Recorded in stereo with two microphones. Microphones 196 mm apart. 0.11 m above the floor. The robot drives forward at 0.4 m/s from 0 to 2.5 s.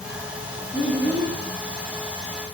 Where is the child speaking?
25° left (ahead or behind), 0.7 m; by 1.4 s 20° left (ahead or behind), 0.9 m.